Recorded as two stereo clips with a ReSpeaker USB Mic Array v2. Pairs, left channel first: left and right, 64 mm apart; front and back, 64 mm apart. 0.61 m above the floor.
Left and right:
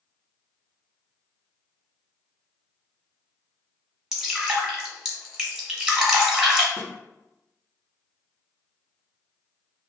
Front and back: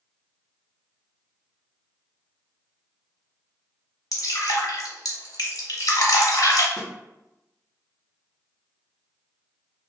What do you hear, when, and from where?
4.1 s dripping: 5° right, 0.9 m
6.8 s a snare drum: 85° left, 1.0 m